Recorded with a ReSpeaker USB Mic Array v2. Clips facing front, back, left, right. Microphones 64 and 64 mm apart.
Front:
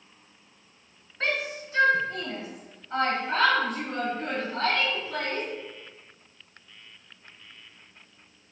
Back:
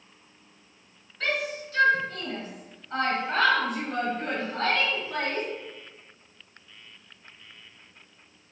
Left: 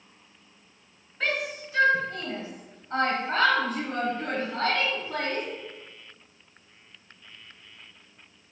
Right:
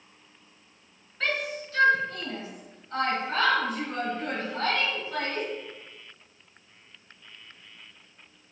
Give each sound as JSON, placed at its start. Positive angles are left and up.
{"t": 1.2, "sound": "a shout", "azimuth_deg": 15, "distance_m": 1.3}